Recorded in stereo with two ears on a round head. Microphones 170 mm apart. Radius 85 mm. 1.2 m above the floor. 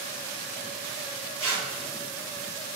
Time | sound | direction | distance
1.4 | tearing paper | 10° left (ahead or behind) | 2.5 m